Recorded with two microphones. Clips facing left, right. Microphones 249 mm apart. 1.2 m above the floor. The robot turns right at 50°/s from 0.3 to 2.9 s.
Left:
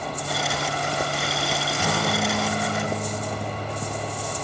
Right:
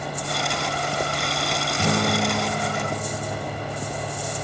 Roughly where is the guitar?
Ahead right.